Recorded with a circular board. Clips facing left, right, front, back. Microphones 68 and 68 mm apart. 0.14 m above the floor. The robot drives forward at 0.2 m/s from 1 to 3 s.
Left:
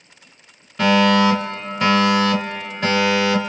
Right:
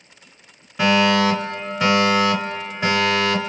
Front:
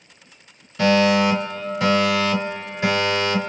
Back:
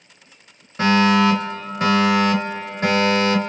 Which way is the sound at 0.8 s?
165° right.